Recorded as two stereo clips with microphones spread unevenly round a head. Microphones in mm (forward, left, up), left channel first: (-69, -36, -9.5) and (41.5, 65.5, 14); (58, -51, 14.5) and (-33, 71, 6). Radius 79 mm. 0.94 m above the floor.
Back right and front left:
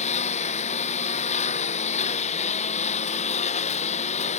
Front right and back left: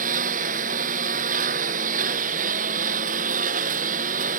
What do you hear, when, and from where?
0.0 s a lawn mower: 175° left